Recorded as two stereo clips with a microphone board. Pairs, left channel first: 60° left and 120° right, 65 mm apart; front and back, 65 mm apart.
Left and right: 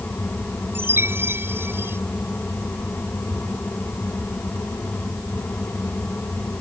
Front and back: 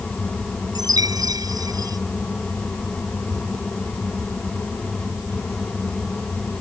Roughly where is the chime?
Behind.